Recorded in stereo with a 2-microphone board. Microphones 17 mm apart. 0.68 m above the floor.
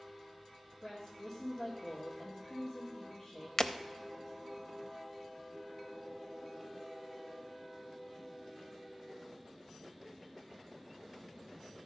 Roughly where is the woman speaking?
Left.